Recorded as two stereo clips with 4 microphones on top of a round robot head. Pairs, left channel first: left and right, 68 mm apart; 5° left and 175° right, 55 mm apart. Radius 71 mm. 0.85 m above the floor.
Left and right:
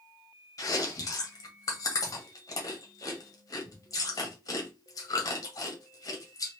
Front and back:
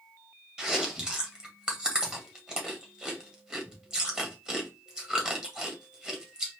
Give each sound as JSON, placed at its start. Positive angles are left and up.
{"t": 0.6, "sound": "chewing", "azimuth_deg": 110, "distance_m": 1.7}